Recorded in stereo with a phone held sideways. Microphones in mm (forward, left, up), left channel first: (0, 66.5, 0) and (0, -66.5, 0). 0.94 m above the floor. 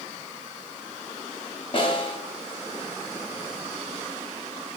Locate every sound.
1.7 s a snare drum: 40° left (ahead or behind), 0.7 m